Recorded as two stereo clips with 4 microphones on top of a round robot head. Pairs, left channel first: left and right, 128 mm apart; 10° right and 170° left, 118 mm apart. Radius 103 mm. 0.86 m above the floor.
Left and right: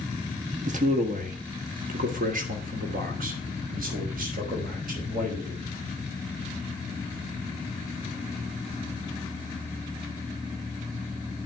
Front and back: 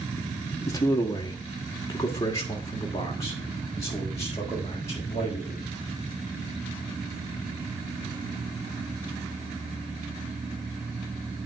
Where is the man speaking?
75° right, 1.4 m; by 5.6 s 80° right, 5 m.